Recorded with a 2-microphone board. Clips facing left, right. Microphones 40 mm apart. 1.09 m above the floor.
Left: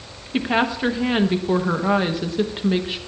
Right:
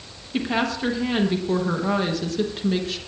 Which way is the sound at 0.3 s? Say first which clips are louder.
Left 3 dB; 20° left (ahead or behind).